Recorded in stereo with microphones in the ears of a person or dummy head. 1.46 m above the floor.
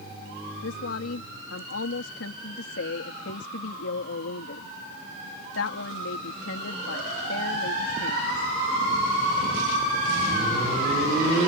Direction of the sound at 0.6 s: 80° left.